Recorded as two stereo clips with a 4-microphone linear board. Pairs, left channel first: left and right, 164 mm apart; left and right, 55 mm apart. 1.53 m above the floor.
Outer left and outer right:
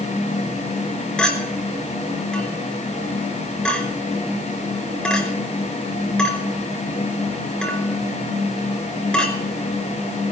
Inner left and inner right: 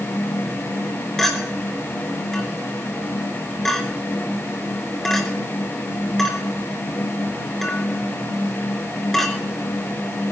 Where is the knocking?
I don't hear knocking.